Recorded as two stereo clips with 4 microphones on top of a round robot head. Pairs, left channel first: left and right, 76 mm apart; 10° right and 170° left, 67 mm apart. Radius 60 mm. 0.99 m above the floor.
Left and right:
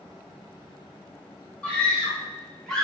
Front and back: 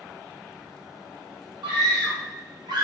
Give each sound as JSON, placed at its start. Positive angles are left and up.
{"t": 1.6, "sound": "a scream", "azimuth_deg": 165, "distance_m": 1.9}